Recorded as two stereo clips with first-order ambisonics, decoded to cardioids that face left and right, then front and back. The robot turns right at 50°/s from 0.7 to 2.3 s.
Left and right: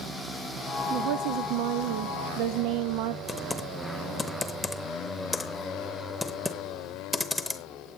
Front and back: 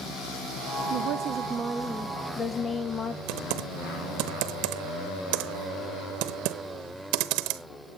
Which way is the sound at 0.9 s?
140° right.